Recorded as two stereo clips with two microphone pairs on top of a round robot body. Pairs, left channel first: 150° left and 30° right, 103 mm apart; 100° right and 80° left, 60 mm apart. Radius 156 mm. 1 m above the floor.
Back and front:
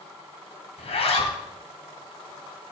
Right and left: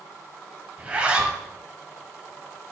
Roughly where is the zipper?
Behind left.